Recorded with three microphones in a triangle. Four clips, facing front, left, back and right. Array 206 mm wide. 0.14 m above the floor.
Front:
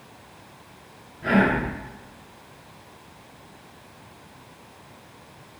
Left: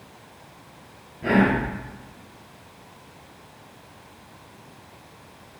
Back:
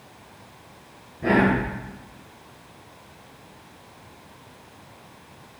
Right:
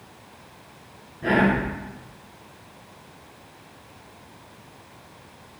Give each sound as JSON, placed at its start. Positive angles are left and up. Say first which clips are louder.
{"t": 1.2, "sound": "whispering", "louder": "left 1 dB, back 1 dB", "azimuth_deg": -175, "distance_m": 1.9}